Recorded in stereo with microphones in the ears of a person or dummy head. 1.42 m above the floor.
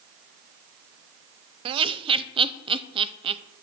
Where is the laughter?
30° right (ahead or behind), 0.5 m.